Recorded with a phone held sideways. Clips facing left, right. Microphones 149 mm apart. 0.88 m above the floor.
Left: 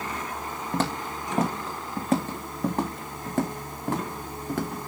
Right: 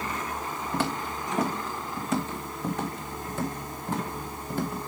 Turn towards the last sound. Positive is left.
turn(degrees=70)  # may be behind; listen again after turning